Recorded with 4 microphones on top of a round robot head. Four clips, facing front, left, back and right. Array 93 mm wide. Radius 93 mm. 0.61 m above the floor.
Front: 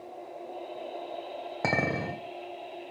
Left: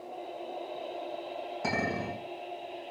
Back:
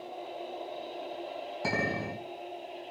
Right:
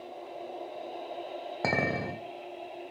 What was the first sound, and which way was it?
A clink, 40° right.